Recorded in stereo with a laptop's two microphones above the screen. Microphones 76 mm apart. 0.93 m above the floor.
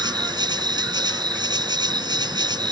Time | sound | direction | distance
0.0 | an insect | 75° right (ahead or behind) | ?